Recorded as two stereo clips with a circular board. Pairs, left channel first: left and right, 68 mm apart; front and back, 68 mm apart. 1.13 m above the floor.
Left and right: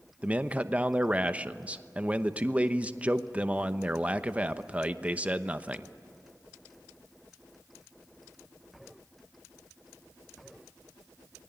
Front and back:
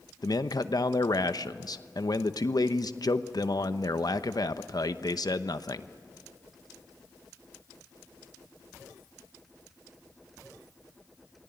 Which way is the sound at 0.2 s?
20° right.